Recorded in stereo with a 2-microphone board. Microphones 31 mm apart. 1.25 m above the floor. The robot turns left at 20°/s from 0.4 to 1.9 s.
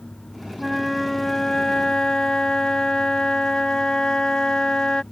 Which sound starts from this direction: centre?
A flute, at 0.6 s.